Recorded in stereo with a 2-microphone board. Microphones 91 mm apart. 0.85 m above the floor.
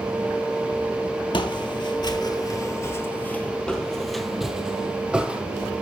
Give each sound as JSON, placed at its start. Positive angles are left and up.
{"t": 1.3, "sound": "footsteps", "side_deg": 60, "distance_m": 1.4}